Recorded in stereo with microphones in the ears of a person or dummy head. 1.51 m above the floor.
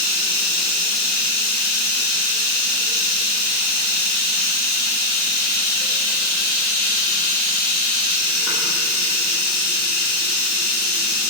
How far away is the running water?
About 1.4 m.